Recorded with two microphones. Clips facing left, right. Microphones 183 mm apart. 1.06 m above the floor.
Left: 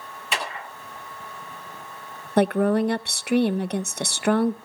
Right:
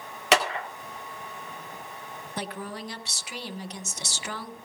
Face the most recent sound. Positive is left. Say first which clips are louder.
# left 17 dB
turn(degrees=60)  # may be behind; listen again after turning